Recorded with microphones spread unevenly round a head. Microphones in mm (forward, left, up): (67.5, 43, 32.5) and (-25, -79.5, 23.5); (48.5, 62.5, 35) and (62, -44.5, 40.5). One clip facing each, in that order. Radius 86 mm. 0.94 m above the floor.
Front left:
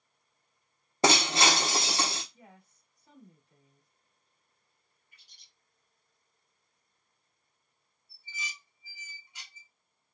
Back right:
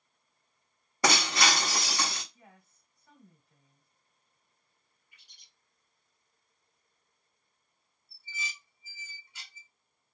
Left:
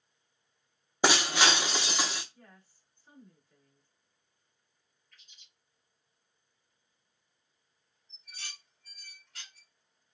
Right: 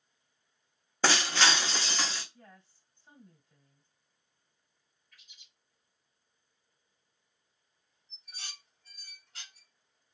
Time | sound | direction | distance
1.0 | breaking glass | 30° left | 0.5 m
2.3 | a woman speaking | 15° right | 2.5 m
5.1 | a bird | straight ahead | 1.7 m
8.1 | dishes clattering | 20° right | 2.0 m